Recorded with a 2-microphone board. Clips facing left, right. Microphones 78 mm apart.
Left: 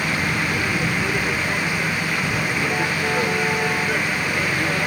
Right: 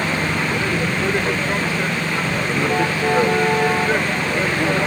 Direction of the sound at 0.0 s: 25° right (ahead or behind).